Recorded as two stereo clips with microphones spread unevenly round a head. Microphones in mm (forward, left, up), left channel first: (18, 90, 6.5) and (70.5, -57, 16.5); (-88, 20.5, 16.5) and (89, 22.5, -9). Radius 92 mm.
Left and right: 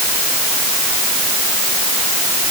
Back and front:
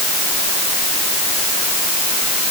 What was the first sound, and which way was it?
Only background noise.